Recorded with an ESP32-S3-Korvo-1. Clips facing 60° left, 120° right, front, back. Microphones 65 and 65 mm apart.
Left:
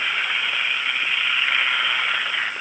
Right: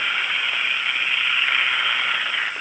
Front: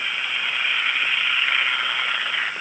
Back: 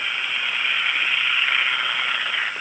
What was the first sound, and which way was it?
Only background noise.